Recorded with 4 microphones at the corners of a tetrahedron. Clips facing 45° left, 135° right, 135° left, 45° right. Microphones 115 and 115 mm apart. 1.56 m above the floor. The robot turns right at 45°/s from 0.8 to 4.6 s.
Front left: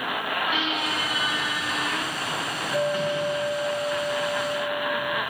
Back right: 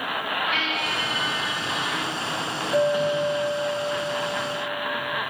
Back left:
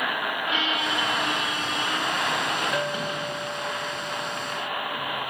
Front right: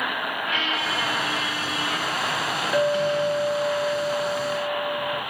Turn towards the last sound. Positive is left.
turn(degrees=-30)